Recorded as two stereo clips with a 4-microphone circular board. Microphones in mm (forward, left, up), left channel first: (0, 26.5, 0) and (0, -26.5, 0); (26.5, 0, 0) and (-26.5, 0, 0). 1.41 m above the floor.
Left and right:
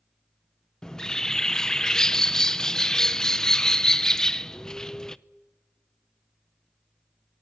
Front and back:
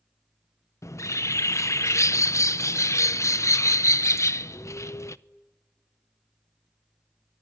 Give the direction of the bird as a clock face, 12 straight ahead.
12 o'clock.